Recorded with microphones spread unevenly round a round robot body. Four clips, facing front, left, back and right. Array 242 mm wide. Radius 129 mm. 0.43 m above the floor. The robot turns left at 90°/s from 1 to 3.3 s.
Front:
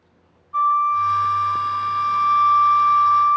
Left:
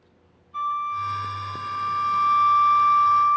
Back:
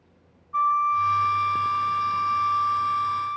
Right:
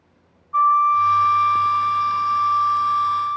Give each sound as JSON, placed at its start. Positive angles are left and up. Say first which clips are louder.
{"t": 0.5, "sound": "a flute", "louder": "right 11 dB, front 4 dB", "azimuth_deg": -110, "distance_m": 0.9}